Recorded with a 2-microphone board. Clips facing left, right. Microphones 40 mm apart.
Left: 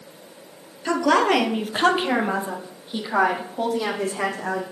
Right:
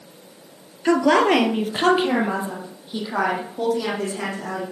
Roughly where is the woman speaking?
Right.